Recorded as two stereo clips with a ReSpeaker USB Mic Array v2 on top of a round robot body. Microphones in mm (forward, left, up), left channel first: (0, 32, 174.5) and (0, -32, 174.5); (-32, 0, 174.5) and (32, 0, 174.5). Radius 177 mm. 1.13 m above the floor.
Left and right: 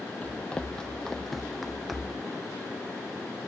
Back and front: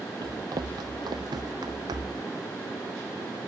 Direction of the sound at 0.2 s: 20° left.